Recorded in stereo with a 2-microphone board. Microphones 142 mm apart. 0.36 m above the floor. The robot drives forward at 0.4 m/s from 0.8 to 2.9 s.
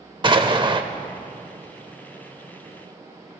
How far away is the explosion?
About 0.7 m.